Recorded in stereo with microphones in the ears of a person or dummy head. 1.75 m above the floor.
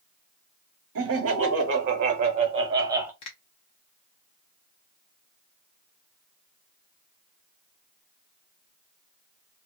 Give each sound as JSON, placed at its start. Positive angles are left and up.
{"t": 0.9, "sound": "laughter", "side_deg": -70, "distance_m": 1.3}
{"t": 3.2, "sound": "a finger snap", "side_deg": 30, "distance_m": 0.7}